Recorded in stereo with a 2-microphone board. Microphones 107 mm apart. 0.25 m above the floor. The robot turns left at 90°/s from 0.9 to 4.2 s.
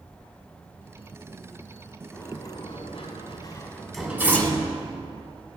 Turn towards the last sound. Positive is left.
turn(degrees=15)  # may be behind; listen again after turning